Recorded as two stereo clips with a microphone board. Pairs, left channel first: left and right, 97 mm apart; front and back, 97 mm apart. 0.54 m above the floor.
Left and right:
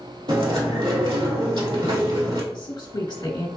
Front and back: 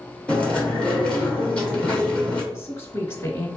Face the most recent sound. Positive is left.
turn(degrees=55)